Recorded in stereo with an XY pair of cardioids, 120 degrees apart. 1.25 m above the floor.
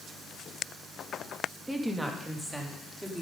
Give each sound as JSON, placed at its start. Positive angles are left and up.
{"t": 1.7, "sound": "a woman speaking", "azimuth_deg": -5, "distance_m": 1.7}